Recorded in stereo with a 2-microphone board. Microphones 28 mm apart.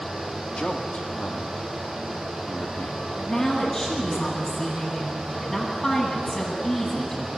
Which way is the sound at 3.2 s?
25° left (ahead or behind).